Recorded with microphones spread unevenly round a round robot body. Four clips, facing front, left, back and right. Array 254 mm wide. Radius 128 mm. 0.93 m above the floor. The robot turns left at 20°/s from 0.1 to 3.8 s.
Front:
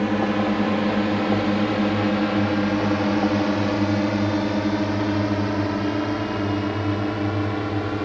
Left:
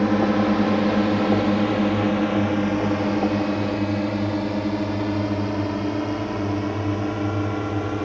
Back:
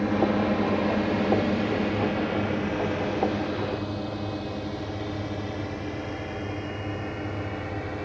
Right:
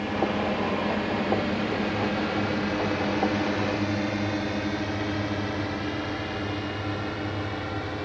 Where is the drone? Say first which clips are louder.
Left 7 dB, front 2 dB; 65° left; by 8.1 s 40° left.